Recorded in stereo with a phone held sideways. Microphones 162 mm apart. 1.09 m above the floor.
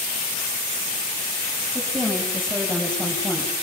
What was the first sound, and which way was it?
A woman speaking, 5° right (ahead or behind).